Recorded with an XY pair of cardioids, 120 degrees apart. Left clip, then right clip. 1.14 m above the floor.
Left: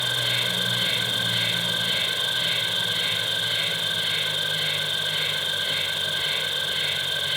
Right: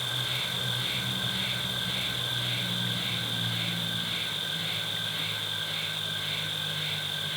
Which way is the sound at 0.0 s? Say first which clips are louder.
Left 7 dB; 65° left.